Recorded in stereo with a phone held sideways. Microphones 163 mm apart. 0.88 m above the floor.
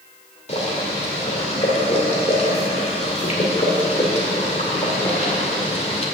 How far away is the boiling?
About 2 m.